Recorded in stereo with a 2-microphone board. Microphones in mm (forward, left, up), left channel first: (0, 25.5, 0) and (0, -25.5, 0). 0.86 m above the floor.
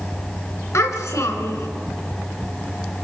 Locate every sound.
0.7 s a child speaking: 85° left, 3 m